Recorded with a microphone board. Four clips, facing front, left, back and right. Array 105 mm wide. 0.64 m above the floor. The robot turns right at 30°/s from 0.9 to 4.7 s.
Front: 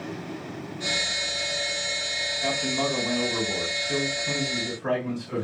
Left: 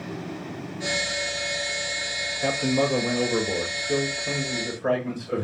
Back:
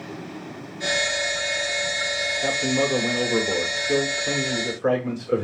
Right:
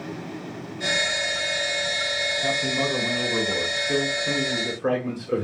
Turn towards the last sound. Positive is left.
turn(degrees=-145)